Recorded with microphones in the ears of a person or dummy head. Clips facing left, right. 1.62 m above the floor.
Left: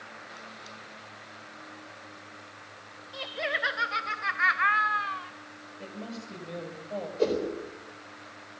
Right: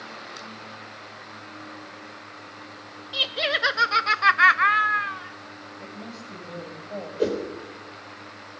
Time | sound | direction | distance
3.1 | laughter | 45° right (ahead or behind) | 1.7 m
5.8 | a woman speaking | 5° left (ahead or behind) | 7.5 m
7.2 | a whoosh | 15° right (ahead or behind) | 4 m